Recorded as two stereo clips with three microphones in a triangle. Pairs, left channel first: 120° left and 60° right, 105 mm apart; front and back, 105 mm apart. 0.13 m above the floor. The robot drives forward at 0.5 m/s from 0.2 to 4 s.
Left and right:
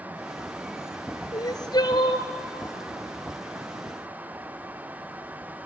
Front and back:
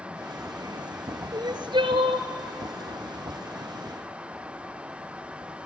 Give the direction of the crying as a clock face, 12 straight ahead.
7 o'clock.